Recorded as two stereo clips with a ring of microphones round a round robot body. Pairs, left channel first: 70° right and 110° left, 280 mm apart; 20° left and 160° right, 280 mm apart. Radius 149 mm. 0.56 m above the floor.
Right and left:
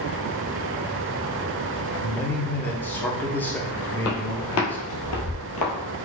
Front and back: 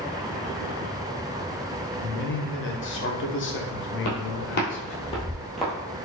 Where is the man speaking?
15° left, 0.8 m.